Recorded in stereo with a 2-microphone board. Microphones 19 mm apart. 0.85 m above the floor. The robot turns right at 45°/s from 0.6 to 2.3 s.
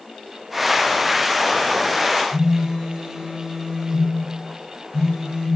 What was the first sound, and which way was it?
A phone buzzing, 30° right (ahead or behind).